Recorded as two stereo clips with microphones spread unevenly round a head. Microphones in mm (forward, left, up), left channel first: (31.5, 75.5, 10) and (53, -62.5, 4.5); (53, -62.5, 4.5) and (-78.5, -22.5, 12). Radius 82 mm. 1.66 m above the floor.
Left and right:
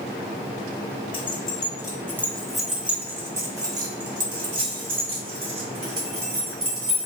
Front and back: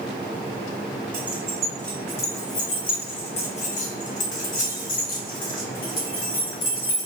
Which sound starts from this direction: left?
Keys jangling, at 1.1 s.